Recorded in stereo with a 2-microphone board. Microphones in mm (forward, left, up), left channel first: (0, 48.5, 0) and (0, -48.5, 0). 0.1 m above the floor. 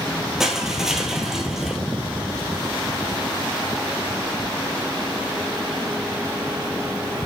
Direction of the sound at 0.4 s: 5° right (ahead or behind).